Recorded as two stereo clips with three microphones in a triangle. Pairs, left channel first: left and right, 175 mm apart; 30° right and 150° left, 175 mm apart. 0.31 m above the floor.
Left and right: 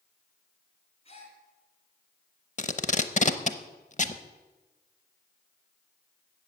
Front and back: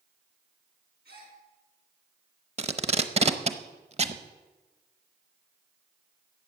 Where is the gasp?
140° left, 3.5 m.